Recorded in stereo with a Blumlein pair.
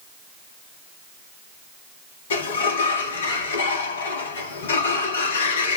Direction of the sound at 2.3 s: 60° left.